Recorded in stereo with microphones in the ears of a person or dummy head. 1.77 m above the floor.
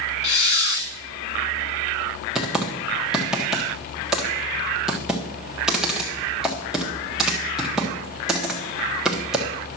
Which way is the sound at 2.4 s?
Centre (ahead or behind).